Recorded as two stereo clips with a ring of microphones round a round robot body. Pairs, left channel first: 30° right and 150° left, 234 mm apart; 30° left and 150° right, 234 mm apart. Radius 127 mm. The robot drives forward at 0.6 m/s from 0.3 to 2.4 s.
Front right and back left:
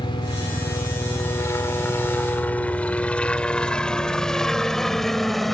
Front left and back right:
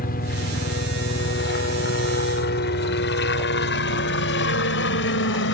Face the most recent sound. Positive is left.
turn(degrees=60)